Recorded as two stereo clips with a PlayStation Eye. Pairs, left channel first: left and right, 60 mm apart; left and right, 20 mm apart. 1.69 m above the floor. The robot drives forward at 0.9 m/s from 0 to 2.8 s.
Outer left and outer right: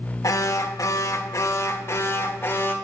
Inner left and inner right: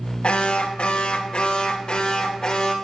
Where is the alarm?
65° left (ahead or behind), 1.5 m; by 2.7 s 35° left (ahead or behind), 2.5 m.